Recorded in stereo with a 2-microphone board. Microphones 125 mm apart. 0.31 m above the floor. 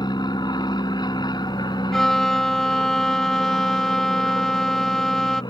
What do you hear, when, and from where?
0.0 s an aircraft: 35° left (ahead or behind)
1.9 s a violin: 5° left (ahead or behind)